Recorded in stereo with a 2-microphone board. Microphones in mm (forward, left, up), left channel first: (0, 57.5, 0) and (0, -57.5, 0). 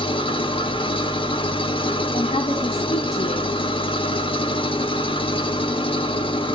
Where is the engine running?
50° left (ahead or behind), 0.7 m.